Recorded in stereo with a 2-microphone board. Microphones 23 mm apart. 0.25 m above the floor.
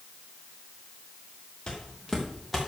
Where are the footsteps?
25° left (ahead or behind), 3 m; by 2.7 s 5° right (ahead or behind), 3 m.